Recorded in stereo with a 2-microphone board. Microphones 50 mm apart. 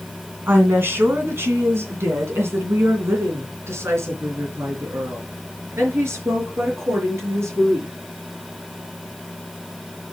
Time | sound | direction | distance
0.5 | a woman speaking | 45° right (ahead or behind) | 2.5 m